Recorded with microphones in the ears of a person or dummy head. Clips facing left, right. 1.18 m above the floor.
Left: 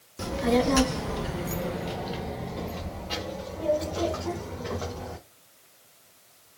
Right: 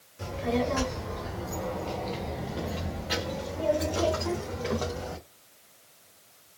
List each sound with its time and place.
0.2 s a child speaking: 70° left (ahead or behind), 1.1 m; by 5.2 s 45° right (ahead or behind), 1.8 m